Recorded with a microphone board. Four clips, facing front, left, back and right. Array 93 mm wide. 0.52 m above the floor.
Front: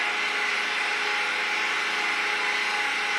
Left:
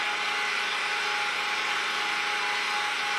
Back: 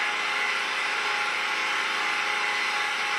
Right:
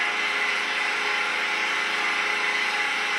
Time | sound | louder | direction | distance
0.0 | an engine running | right 3 dB, even | 80° right | 3.5 m